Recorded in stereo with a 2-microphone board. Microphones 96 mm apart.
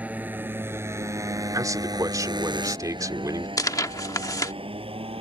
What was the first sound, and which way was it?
A motorcycle, 15° right (ahead or behind).